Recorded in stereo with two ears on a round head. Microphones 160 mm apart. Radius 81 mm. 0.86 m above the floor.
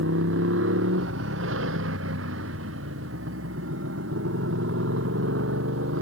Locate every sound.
0.0 s a motorcycle: 85° right